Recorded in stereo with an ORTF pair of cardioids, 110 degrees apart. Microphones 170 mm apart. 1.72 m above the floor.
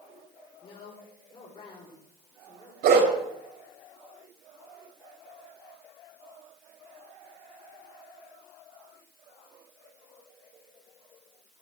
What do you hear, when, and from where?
0.6 s a woman speaking: 30° left, 5.5 m
2.8 s a dog barking: 70° right, 4.5 m